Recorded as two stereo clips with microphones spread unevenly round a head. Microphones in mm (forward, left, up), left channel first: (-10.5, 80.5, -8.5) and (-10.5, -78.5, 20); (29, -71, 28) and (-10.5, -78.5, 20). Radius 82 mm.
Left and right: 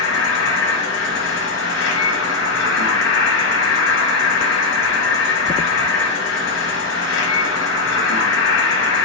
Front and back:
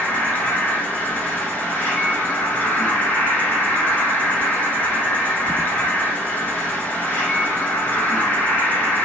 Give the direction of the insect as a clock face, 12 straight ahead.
9 o'clock.